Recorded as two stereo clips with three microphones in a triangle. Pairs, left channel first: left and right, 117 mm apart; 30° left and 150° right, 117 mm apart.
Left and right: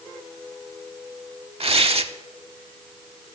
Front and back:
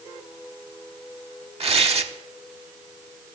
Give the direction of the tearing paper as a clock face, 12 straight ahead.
4 o'clock.